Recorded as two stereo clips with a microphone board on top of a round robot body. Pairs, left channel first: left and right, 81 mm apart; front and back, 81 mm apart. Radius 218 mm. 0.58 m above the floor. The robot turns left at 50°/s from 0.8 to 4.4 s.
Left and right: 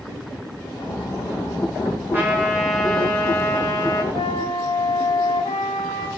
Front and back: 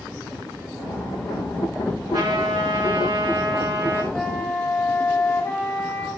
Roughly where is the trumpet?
Behind right.